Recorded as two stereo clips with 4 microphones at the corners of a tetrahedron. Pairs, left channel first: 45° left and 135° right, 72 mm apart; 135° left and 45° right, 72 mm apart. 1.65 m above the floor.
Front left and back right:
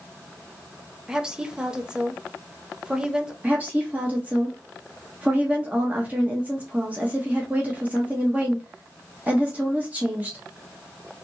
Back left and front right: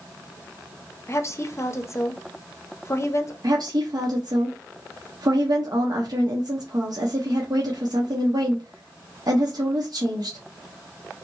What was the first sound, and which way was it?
A woman speaking, 155° left.